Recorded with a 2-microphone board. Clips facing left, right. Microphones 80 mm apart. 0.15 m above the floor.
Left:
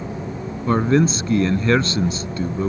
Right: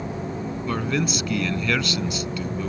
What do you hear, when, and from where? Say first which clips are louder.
0.7 s a man speaking: left 9 dB; 30° left (ahead or behind)